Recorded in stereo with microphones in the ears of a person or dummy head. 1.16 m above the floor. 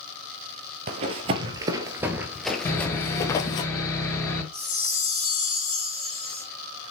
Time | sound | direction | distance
0.9 | running footsteps | 40° right (ahead or behind) | 1.6 m
2.6 | sawing | 15° left (ahead or behind) | 4.5 m
4.5 | a chime | 15° left (ahead or behind) | 4 m